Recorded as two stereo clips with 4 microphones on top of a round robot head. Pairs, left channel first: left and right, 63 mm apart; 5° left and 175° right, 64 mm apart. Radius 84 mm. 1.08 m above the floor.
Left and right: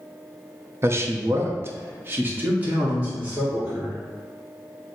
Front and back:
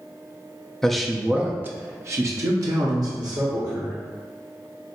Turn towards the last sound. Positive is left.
turn(degrees=-160)